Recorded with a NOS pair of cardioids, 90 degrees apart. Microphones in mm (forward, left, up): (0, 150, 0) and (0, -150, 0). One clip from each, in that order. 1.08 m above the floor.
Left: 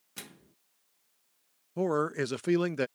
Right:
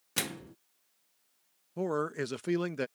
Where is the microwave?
60° right.